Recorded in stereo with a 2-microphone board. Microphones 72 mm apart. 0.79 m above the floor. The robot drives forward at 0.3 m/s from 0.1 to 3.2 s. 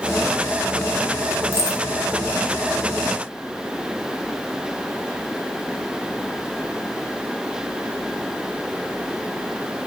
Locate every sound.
1.5 s keys jangling: 45° right (ahead or behind), 0.6 m